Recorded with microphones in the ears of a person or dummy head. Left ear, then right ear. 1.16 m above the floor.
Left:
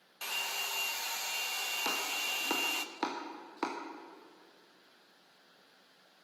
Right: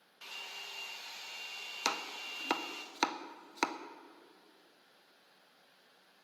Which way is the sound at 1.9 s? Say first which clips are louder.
Right 1 dB; 50° right (ahead or behind).